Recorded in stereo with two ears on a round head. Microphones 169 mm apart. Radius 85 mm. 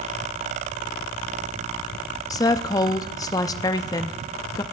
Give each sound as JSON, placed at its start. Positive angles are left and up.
{"t": 2.3, "sound": "a woman speaking", "side_deg": 20, "distance_m": 0.6}